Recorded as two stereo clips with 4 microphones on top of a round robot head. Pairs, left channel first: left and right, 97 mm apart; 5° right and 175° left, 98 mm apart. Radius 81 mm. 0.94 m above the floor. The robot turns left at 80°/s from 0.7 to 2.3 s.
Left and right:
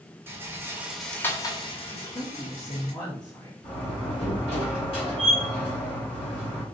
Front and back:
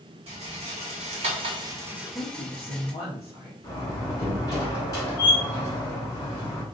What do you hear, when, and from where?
0.3 s a rattle: 155° right, 1.3 m; by 2.9 s 75° left, 1.3 m
1.9 s a woman speaking: 75° left, 1.6 m; by 3.5 s 45° left, 1.6 m
3.6 s a door slam: 50° left, 2.5 m